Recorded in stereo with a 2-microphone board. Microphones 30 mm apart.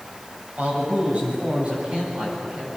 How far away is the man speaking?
About 7.5 m.